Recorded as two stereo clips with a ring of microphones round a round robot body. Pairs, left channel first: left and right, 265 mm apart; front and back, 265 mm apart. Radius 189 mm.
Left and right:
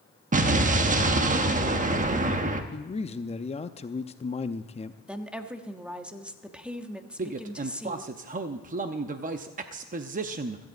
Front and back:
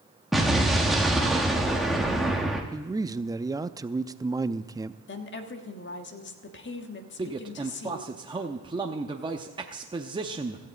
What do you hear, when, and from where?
0.3 s an explosion: 90° right, 1.1 m
2.7 s a man speaking: 120° left, 0.5 m
5.1 s a woman speaking: 5° right, 1.4 m
7.2 s a man speaking: 120° right, 0.6 m